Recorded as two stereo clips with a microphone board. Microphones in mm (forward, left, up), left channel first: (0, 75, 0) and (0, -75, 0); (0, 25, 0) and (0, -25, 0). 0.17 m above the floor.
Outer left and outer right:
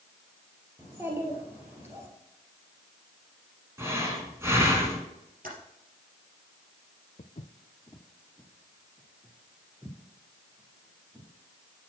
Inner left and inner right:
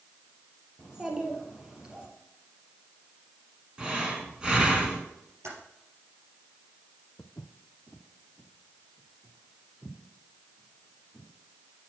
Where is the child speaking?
15° right (ahead or behind), 2 m.